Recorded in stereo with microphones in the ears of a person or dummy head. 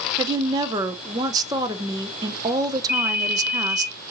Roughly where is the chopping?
I don't hear chopping.